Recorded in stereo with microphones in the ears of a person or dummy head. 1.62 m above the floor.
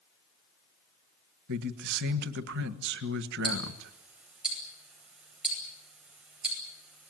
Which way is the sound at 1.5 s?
60° right (ahead or behind).